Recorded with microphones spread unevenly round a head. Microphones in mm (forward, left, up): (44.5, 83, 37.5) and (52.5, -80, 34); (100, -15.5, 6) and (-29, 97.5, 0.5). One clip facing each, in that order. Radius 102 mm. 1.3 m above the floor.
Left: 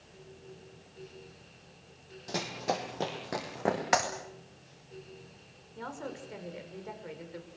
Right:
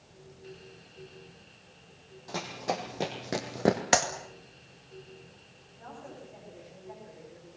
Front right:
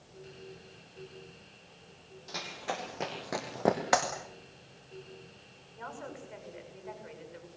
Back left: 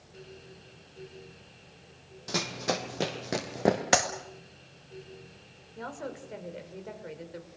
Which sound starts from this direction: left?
A woman speaking, at 5.8 s.